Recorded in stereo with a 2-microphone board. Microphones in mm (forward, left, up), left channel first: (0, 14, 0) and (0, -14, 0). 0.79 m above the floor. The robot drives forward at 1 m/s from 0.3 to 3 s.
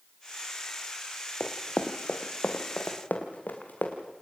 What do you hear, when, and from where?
1.4 s running footsteps: 50° left (ahead or behind), 1.3 m; by 4.0 s 75° left (ahead or behind), 3.5 m